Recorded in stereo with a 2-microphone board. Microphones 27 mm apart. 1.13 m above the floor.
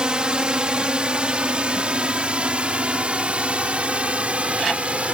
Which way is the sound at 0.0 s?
40° right (ahead or behind).